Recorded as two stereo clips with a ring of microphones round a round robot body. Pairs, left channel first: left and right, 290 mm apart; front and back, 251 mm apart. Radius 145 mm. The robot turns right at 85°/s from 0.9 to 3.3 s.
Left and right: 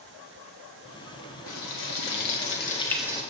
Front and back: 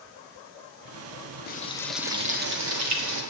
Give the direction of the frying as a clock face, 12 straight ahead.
10 o'clock.